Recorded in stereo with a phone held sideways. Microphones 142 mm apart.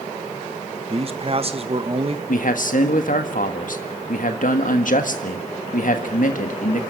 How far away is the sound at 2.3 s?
About 1.5 m.